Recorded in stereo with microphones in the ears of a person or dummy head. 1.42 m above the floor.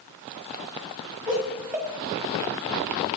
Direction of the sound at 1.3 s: 10° right (ahead or behind).